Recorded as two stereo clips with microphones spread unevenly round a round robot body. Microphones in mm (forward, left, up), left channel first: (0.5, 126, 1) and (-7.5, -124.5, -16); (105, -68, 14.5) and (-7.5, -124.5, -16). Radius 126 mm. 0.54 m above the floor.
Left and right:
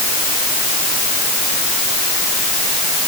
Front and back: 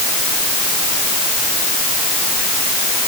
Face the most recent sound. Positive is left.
No sound to turn to.